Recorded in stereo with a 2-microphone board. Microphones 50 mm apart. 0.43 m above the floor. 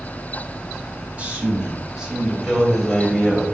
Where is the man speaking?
30° right (ahead or behind), 1.9 m; by 3.5 s 5° left (ahead or behind), 2.5 m.